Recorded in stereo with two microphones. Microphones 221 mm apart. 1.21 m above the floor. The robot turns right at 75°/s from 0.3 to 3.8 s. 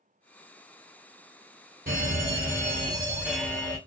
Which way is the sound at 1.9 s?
110° right.